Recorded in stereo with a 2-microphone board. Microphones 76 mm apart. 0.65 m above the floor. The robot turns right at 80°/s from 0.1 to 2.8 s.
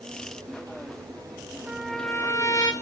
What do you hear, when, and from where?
1.7 s a trumpet: 15° right, 0.9 m; by 2.7 s 70° left, 0.9 m